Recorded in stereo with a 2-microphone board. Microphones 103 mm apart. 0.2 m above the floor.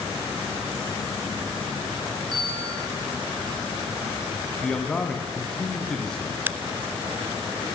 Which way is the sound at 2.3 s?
5° left (ahead or behind).